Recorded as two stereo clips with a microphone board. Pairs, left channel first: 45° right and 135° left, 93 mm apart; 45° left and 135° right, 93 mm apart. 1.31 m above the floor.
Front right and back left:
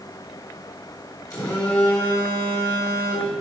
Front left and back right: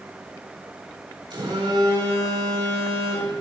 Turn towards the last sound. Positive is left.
turn(degrees=-100)